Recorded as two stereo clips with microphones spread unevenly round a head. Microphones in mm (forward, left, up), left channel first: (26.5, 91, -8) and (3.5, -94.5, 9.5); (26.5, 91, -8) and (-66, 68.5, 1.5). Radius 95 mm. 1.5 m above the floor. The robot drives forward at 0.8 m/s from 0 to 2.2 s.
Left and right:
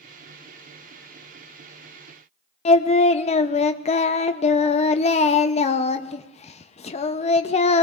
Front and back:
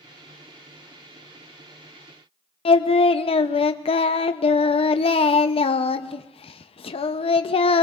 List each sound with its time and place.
2.6 s singing: 25° left, 0.6 m